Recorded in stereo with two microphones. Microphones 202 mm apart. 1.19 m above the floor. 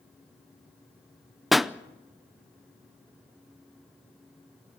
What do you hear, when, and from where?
1.5 s a pop: centre (ahead or behind), 0.6 m